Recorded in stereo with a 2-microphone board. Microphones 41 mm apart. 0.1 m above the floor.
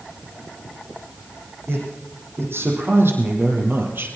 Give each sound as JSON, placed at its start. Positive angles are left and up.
{"t": 1.7, "sound": "a man speaking", "side_deg": -75, "distance_m": 6.0}